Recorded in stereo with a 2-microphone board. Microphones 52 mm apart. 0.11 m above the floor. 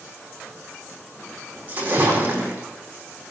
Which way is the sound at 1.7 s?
30° right (ahead or behind).